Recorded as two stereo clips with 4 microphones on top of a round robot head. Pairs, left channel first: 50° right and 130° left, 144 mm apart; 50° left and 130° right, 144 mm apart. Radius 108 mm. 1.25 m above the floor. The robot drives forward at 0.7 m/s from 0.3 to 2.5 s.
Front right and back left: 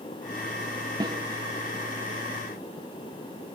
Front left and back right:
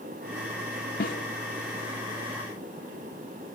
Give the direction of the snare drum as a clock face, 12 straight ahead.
10 o'clock.